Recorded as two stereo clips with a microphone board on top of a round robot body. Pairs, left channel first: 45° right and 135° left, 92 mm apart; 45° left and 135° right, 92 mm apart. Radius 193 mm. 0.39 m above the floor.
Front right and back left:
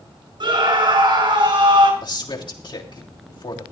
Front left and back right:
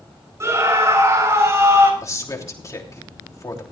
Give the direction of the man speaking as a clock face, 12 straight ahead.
12 o'clock.